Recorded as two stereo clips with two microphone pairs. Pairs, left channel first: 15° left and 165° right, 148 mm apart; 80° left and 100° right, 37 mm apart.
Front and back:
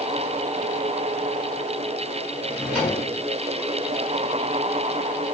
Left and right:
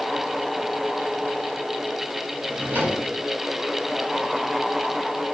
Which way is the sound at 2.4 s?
80° right.